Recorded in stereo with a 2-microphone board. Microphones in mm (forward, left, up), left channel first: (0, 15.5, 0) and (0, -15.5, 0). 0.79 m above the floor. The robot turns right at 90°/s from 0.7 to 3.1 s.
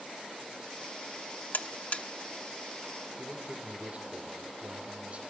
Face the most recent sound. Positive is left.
turn(degrees=-45)  # may be behind; listen again after turning